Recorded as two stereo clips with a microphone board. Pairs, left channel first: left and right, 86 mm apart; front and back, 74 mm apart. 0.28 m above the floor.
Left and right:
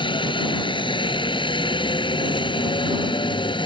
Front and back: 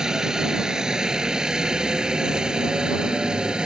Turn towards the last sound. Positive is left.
turn(degrees=100)